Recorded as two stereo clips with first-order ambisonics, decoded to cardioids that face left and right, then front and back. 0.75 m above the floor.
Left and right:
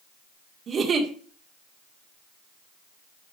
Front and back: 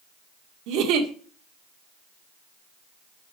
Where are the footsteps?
No footsteps in this recording.